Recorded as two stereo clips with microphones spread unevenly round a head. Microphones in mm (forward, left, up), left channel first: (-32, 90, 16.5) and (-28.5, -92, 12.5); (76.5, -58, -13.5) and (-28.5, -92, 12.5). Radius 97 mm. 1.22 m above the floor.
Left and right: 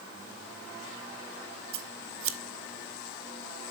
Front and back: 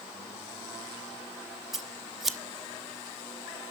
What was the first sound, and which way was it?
Scissors, 80° right.